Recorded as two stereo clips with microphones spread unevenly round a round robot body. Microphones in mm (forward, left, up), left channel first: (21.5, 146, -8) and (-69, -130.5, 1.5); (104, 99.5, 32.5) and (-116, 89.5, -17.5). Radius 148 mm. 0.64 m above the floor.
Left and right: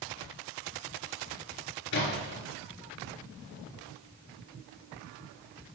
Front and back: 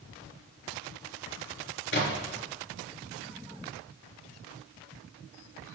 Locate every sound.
1.9 s a splash: 40° left, 3.5 m